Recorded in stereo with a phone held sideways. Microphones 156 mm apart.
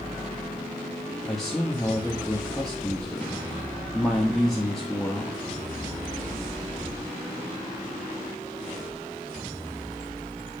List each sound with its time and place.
1.2 s a man speaking: 5° left (ahead or behind), 1.1 m